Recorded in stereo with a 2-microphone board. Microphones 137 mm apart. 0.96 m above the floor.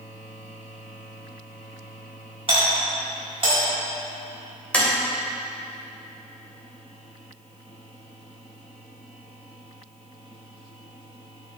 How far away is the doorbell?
About 4 m.